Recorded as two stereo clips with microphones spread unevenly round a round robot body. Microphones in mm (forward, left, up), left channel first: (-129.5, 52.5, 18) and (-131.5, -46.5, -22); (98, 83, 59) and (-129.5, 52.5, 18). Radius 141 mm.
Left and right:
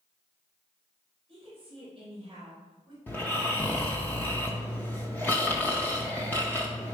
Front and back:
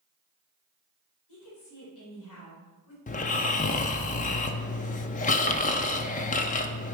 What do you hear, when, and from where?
1.3 s a woman speaking: 20° right, 4 m; by 3.0 s 5° right, 3.5 m
3.1 s snoring: 45° left, 0.5 m